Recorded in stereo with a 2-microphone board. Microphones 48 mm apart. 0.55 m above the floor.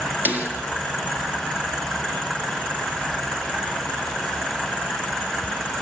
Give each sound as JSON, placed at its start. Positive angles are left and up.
{"t": 0.2, "sound": "a snare drum", "side_deg": -35, "distance_m": 3.5}